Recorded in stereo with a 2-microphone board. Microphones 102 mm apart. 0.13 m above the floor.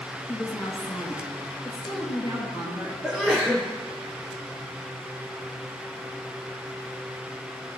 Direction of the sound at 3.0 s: Centre (ahead or behind).